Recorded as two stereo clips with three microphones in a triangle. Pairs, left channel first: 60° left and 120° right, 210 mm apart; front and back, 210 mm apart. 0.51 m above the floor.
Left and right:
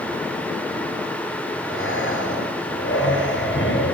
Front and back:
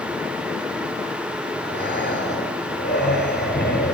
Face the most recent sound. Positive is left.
turn(degrees=35)